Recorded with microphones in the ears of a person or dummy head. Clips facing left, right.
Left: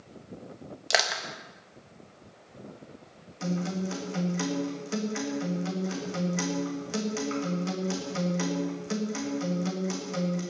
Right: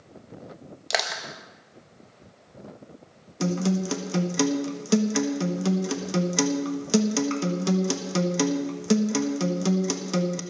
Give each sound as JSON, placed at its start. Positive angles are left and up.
{"t": 0.9, "sound": "crushing", "side_deg": 0, "distance_m": 1.3}
{"t": 3.4, "sound": "a guitar", "side_deg": -70, "distance_m": 1.5}